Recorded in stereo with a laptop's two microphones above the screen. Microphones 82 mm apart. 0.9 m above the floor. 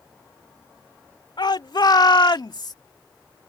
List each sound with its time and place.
1.4 s a shout: 70° left (ahead or behind); by 2.8 s 55° left (ahead or behind)